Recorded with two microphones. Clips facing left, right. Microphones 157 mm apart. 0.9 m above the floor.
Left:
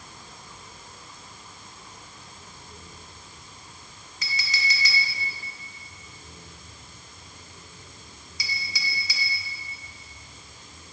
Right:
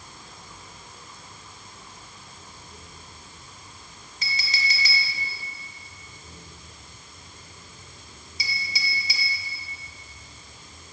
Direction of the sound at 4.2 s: 30° right (ahead or behind).